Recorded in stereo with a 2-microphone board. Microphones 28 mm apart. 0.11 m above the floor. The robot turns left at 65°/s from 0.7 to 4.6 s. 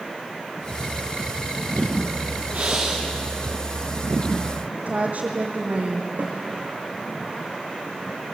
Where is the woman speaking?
50° right (ahead or behind), 3 m.